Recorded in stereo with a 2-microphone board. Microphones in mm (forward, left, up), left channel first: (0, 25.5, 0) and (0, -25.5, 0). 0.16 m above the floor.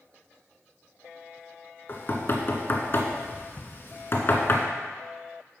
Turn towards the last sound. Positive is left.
turn(degrees=45)  # may be behind; listen again after turning